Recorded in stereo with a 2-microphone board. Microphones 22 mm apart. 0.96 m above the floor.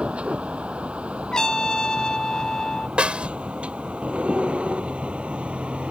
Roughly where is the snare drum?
Right.